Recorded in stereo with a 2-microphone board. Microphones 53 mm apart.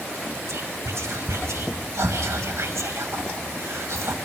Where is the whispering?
75° right (ahead or behind), 2 m.